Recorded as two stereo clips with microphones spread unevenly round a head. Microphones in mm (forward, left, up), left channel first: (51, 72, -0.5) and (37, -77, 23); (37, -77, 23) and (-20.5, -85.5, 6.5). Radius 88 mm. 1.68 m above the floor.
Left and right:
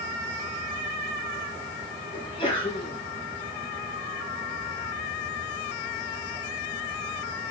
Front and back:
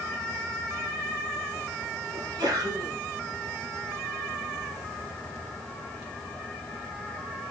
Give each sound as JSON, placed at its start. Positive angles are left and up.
{"t": 2.1, "sound": "a sneeze", "azimuth_deg": 150, "distance_m": 2.5}